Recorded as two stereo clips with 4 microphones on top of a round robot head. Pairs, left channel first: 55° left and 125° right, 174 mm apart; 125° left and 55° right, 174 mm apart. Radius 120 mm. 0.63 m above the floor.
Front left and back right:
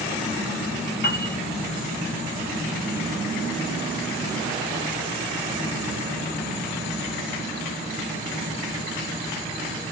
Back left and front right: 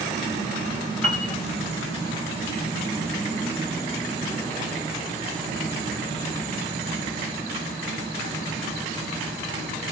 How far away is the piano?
About 2.5 m.